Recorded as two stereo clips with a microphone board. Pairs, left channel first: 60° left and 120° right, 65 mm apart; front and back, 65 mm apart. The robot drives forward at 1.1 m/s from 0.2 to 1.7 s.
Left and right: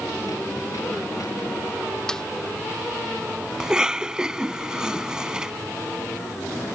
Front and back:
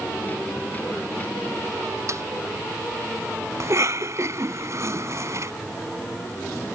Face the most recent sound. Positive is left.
turn(degrees=160)